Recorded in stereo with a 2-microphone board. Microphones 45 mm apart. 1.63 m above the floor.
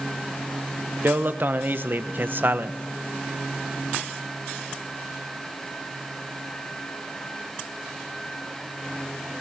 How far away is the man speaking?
About 0.8 m.